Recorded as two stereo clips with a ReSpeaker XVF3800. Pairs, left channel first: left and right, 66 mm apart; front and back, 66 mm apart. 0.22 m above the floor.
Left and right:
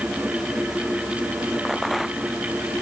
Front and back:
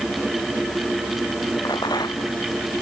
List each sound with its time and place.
1.6 s a rattle: straight ahead